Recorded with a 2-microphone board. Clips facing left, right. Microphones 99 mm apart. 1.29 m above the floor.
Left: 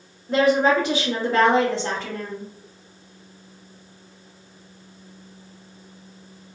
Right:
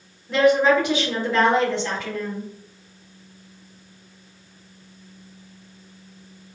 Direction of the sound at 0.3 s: 35° left (ahead or behind).